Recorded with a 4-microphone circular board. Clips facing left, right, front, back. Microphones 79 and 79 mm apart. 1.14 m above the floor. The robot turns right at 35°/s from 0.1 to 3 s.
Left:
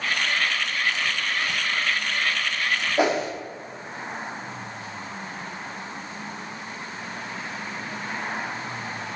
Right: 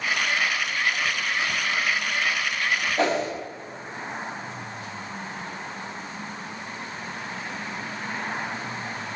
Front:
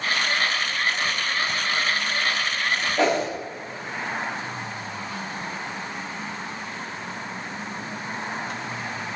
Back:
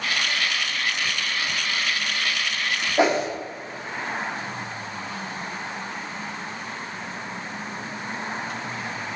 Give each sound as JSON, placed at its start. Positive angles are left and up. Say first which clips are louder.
{"t": 3.0, "sound": "a whoosh", "louder": "left 2 dB, back 2 dB", "azimuth_deg": 130, "distance_m": 0.6}